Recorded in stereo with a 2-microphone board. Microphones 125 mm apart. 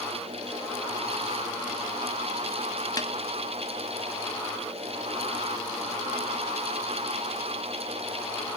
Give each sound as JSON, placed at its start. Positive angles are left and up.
{"t": 3.0, "sound": "a snare drum", "side_deg": 30, "distance_m": 0.9}